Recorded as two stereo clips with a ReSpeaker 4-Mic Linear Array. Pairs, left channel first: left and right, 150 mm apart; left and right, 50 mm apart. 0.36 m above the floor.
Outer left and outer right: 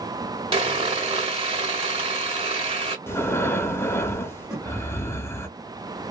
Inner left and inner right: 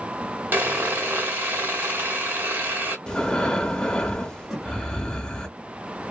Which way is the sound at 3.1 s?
15° left (ahead or behind).